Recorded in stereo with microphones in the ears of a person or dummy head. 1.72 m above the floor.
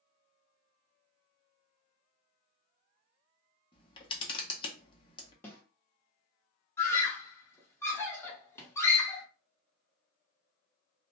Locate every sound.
3.7 s a camera shutter: 30° left (ahead or behind), 0.7 m
5.4 s a snare drum: 15° left (ahead or behind), 0.8 m
6.8 s a scream: 15° left (ahead or behind), 1.0 m